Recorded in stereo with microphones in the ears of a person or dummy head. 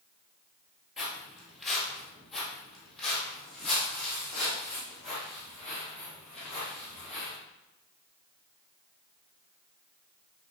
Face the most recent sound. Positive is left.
turn(degrees=5)  # may be behind; listen again after turning